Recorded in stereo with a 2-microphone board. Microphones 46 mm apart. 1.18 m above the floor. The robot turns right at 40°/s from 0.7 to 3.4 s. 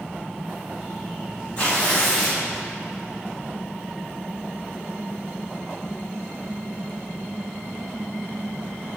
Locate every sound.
1.6 s tearing paper: 150° left, 1.4 m; by 2.4 s 175° right, 1.4 m